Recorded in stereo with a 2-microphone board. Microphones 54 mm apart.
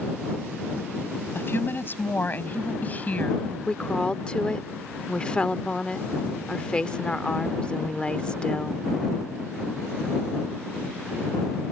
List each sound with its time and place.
1.4 s a woman speaking: 50° left (ahead or behind); by 3.6 s 25° left (ahead or behind)
3.7 s a woman speaking: 20° left (ahead or behind)